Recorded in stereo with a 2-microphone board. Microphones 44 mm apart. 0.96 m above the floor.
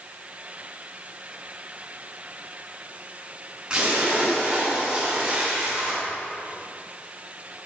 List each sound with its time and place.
3.7 s a splash: 20° right (ahead or behind), 8 m